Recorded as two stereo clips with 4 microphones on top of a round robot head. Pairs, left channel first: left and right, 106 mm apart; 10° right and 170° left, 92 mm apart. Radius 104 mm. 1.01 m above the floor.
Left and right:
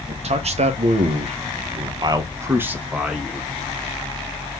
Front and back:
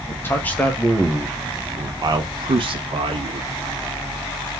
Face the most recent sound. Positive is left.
turn(degrees=180)